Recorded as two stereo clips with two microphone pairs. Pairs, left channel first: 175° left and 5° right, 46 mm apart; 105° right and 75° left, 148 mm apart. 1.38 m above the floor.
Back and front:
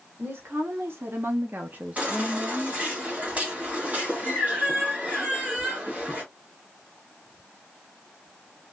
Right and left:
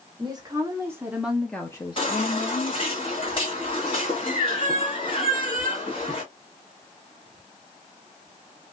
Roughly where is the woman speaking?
Ahead.